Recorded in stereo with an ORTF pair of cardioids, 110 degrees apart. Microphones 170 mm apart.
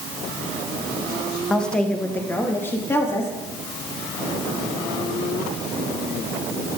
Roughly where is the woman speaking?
Ahead.